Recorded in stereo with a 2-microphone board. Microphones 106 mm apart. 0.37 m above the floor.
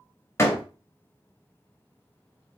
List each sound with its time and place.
0.4 s a door slam: 30° left (ahead or behind), 1.3 m